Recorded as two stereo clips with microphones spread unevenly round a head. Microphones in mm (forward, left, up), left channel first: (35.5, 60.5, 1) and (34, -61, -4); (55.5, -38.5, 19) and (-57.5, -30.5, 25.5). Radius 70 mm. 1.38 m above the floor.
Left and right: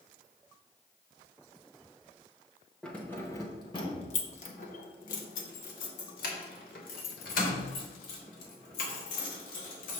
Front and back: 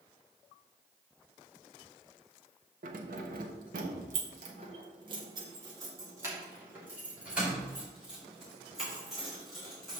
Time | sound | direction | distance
2.8 | keys jangling | 175° left | 1.3 m